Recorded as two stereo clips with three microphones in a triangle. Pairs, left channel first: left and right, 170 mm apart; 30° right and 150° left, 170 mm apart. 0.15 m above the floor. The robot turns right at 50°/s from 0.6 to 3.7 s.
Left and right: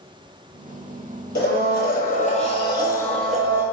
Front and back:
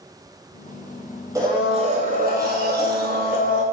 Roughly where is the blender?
Left.